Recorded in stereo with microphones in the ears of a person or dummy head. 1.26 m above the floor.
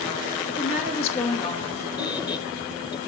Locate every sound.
0.5 s a woman speaking: 35° left (ahead or behind), 1.8 m
2.0 s a squeak: 20° left (ahead or behind), 0.6 m